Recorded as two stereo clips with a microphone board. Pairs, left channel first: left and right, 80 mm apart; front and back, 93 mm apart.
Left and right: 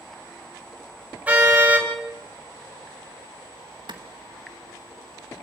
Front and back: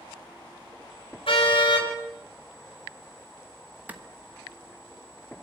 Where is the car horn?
20° right, 4.5 m.